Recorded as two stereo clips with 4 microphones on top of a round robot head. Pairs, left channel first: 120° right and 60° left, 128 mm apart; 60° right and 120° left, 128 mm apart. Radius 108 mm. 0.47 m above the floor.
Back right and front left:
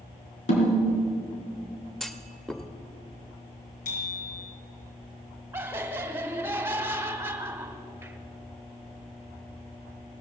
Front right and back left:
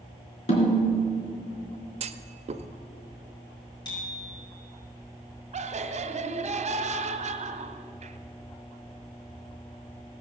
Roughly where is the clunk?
Behind left.